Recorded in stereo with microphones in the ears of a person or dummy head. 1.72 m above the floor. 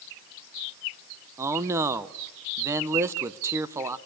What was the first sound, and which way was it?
A man speaking, 15° right (ahead or behind).